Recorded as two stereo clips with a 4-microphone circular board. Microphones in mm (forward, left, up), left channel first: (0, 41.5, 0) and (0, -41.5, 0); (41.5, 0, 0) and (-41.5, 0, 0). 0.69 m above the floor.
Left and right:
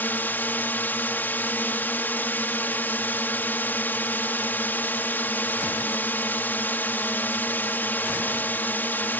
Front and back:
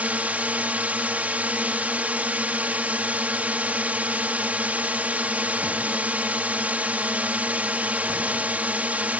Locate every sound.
0.0 s a drone: 130° left